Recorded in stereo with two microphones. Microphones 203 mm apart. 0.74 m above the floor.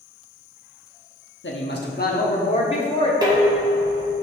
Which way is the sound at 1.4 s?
60° left (ahead or behind).